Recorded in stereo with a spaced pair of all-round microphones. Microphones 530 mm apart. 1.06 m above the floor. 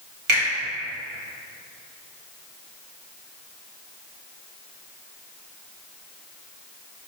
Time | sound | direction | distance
0.3 | a finger snap | 60° right (ahead or behind) | 1.1 m